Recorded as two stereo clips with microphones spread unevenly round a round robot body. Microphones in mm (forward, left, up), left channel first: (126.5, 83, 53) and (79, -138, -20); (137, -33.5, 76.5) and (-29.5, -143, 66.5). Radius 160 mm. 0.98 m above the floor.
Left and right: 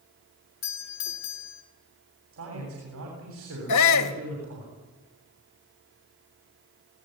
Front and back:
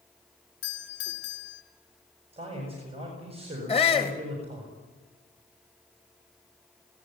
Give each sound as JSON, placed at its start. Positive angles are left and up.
{"t": 0.6, "sound": "a doorbell", "azimuth_deg": 75, "distance_m": 2.5}
{"t": 2.3, "sound": "a man speaking", "azimuth_deg": -85, "distance_m": 7.0}
{"t": 3.7, "sound": "a shout", "azimuth_deg": 100, "distance_m": 1.7}